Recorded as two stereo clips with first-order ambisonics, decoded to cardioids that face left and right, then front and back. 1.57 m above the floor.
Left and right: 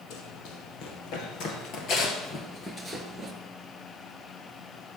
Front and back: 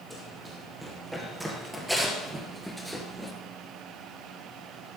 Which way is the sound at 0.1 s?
95° left.